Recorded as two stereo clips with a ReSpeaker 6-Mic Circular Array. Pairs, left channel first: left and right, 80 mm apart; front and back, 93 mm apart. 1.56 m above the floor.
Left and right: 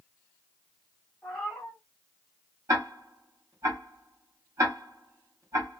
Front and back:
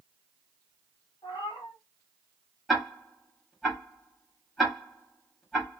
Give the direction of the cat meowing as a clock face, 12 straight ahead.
12 o'clock.